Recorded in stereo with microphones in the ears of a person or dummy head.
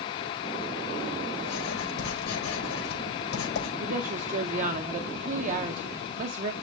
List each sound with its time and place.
1.4 s writing: 80° left, 5 m
3.8 s a woman speaking: 40° right (ahead or behind), 0.6 m